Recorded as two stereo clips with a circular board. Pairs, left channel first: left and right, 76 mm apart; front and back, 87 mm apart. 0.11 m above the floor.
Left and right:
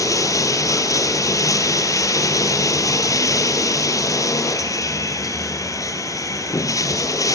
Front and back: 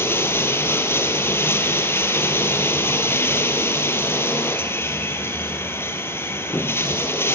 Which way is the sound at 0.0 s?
60° left.